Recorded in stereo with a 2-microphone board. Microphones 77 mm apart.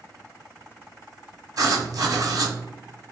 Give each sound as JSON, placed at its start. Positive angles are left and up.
{"t": 1.6, "sound": "writing", "side_deg": -50, "distance_m": 0.7}